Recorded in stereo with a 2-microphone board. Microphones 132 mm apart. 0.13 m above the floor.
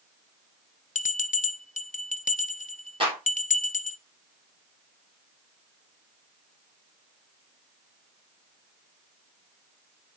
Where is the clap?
40° right (ahead or behind), 4 m.